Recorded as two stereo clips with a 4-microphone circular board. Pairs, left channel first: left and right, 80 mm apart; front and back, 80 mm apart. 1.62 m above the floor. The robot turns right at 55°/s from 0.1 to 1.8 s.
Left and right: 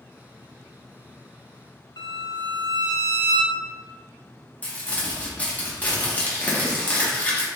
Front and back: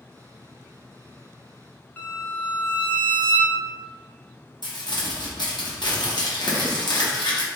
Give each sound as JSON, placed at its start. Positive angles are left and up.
{"t": 2.0, "sound": "a violin", "azimuth_deg": 70, "distance_m": 0.7}
{"t": 4.6, "sound": "crumpling", "azimuth_deg": 20, "distance_m": 1.1}